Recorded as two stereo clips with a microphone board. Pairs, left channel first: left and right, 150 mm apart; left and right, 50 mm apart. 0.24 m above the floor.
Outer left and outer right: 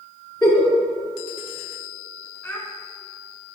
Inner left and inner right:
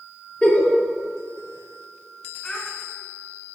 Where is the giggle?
25° left (ahead or behind), 3 m.